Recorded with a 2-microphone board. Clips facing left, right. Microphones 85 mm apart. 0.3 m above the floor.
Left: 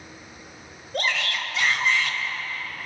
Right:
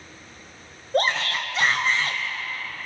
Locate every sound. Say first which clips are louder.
0.9 s a shout: right 4 dB; 35° right (ahead or behind), 1.0 m